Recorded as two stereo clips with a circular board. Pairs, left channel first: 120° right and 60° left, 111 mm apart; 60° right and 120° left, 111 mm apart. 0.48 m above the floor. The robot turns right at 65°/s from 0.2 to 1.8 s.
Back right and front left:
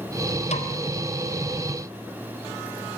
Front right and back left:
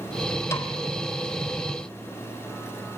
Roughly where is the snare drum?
Behind right.